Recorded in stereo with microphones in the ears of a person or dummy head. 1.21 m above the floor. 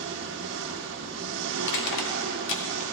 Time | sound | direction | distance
0.0 | an engine running | 65° right (ahead or behind) | 1.1 m
1.6 | crushing | 75° left (ahead or behind) | 2 m